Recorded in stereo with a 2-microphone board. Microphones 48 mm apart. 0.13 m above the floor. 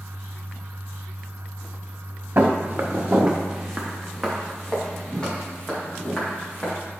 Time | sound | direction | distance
2.4 | footsteps | 45° right (ahead or behind) | 1.5 m